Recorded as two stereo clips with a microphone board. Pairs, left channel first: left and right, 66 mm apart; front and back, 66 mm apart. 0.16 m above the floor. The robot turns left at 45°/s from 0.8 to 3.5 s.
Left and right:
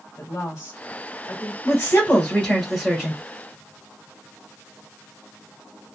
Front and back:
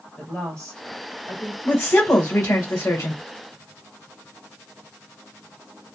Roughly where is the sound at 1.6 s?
Ahead left.